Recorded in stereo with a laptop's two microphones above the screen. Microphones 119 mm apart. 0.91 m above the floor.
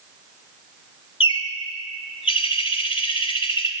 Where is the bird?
50° left (ahead or behind), 1.4 m.